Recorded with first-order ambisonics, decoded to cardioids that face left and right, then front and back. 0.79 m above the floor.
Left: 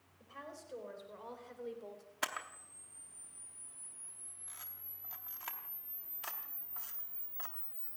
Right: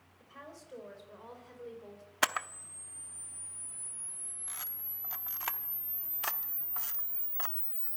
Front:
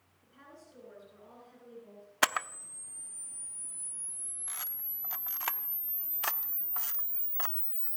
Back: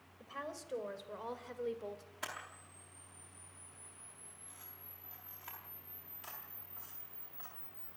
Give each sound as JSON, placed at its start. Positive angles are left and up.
{"t": 0.2, "sound": "a woman speaking", "azimuth_deg": 180, "distance_m": 4.5}
{"t": 2.2, "sound": "a camera shutter", "azimuth_deg": -30, "distance_m": 0.7}